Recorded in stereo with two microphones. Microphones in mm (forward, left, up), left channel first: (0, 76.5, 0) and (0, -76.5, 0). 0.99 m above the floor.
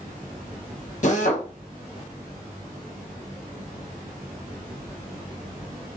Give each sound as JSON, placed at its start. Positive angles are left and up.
{"t": 1.0, "sound": "a drill", "side_deg": 55, "distance_m": 0.8}